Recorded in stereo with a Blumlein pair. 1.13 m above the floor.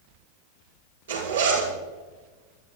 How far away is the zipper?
About 8 m.